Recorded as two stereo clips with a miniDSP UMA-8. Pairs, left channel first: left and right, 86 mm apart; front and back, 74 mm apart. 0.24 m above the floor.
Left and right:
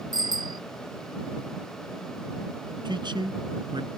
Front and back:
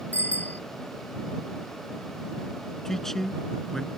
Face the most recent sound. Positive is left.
turn(degrees=-85)